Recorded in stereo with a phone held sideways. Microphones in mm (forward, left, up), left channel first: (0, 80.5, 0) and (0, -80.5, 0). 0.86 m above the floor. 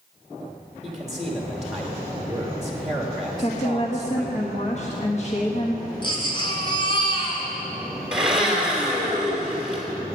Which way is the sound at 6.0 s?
30° left (ahead or behind).